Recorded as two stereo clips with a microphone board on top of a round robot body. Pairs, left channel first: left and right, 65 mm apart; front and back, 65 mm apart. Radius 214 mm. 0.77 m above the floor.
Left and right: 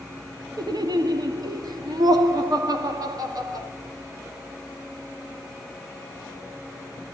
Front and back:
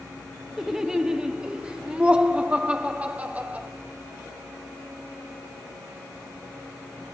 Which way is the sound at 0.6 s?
95° right.